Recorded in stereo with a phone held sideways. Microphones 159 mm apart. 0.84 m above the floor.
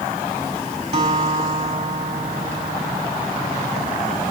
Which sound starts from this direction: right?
A guitar, at 0.9 s.